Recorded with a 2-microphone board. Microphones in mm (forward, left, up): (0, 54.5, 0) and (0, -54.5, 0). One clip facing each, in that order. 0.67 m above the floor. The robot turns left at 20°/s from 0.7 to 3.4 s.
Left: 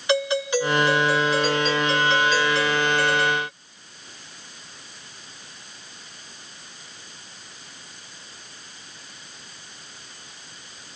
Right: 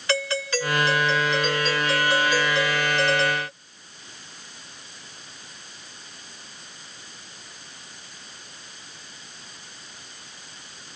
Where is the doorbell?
20° left; by 3.5 s 35° right.